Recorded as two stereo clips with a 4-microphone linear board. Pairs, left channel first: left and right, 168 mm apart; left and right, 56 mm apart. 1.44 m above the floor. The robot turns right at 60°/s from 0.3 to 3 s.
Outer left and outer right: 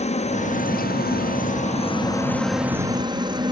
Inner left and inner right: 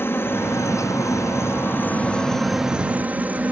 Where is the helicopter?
45° left; by 3.5 s 150° right.